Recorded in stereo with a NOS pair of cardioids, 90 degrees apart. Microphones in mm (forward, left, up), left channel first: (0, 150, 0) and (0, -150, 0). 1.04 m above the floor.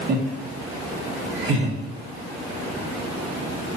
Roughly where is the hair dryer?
No hair dryer in this recording.